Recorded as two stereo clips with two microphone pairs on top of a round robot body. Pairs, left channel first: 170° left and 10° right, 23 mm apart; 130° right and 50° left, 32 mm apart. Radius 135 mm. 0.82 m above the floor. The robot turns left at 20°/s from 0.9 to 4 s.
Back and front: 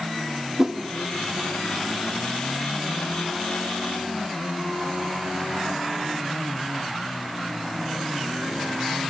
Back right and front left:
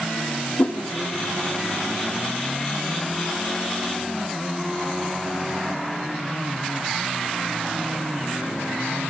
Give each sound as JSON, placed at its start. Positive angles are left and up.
{"t": 0.6, "sound": "a whoosh", "azimuth_deg": -80, "distance_m": 0.6}